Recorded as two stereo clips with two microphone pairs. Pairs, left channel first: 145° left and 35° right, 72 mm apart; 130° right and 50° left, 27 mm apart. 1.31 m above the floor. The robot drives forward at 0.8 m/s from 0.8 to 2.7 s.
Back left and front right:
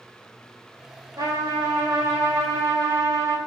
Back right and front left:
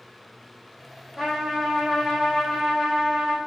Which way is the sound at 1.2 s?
25° right.